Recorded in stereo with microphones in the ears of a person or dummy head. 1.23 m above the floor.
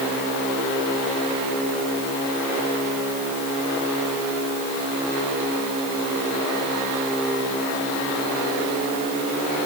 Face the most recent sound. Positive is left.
No sound to turn to.